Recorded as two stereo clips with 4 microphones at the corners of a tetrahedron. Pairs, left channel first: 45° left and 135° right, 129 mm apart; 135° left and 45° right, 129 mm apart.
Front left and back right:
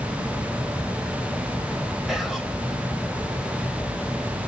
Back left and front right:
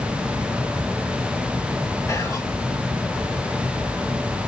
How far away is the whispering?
About 1.1 m.